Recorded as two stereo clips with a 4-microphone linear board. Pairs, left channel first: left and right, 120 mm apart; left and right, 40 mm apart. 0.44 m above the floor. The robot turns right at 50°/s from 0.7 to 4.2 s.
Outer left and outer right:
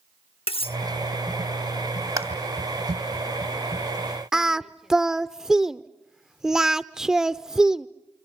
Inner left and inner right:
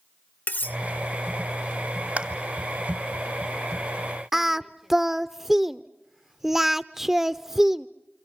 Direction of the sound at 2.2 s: 30° right (ahead or behind).